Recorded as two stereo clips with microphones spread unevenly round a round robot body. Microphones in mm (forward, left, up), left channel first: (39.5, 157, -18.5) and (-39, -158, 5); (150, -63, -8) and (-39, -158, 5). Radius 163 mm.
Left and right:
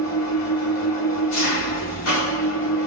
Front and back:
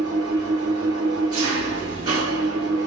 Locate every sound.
0.0 s an engine running: 125° left, 1.6 m